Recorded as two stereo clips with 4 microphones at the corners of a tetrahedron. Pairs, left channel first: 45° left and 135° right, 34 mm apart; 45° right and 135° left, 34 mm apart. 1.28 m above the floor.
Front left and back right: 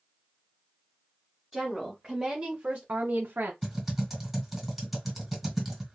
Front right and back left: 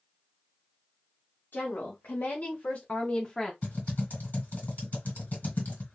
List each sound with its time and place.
1.5 s a woman speaking: 55° right, 1.5 m; by 3.5 s 125° right, 0.8 m
3.6 s typing on a keyboard: 50° right, 1.9 m